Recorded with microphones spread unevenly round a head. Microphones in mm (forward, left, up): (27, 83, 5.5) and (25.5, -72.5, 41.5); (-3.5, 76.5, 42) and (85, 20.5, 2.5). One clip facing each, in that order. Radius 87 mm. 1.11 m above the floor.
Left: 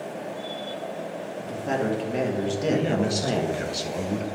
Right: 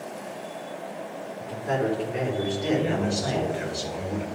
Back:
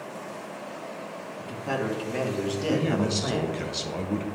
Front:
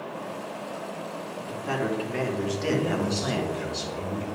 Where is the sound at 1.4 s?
85° left, 2.5 m; by 3.6 s 40° left, 1.1 m.